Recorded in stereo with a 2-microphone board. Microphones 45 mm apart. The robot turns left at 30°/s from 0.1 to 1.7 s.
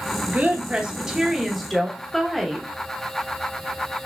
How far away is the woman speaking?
About 0.9 m.